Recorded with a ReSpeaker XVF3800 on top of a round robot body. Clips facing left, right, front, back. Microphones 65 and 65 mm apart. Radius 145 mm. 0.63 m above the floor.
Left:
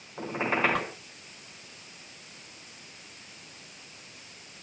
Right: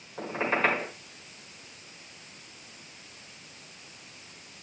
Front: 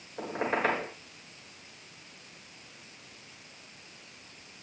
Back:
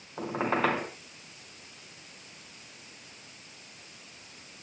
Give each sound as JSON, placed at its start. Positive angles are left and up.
{"t": 0.2, "sound": "a squeak", "azimuth_deg": 175, "distance_m": 4.5}